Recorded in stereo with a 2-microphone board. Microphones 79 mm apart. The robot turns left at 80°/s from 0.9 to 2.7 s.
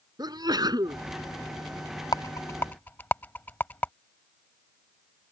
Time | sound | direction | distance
0.2 | a sneeze | 60° right (ahead or behind) | ?
2.1 | a rattle | 55° left (ahead or behind) | ?